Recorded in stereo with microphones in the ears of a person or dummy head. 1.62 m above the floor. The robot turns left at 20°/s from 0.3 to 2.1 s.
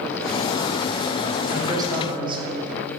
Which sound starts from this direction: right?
A man speaking, at 1.5 s.